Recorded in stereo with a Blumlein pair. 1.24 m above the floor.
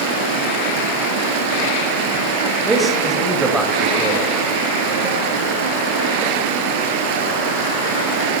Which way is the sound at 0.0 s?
45° right.